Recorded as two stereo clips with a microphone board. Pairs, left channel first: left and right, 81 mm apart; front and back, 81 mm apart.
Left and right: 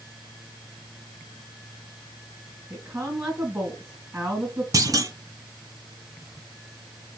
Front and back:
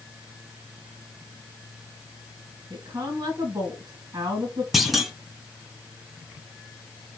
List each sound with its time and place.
2.7 s a woman speaking: 140° right, 2.5 m
4.7 s a clunk: 95° right, 0.8 m